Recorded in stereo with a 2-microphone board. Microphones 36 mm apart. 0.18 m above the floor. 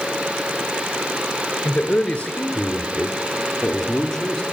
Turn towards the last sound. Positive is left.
turn(degrees=10)  # may be behind; listen again after turning